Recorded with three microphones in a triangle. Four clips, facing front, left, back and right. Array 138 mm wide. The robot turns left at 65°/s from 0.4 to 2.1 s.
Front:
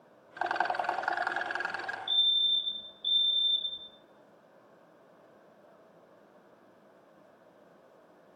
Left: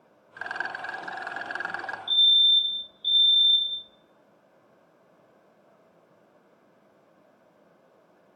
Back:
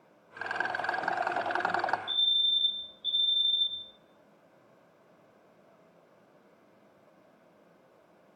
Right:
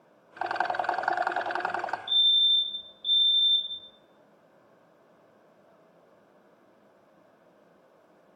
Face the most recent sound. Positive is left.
turn(degrees=30)